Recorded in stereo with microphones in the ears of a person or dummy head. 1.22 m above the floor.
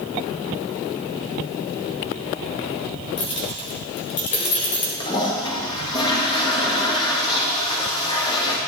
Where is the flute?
I don't hear a flute.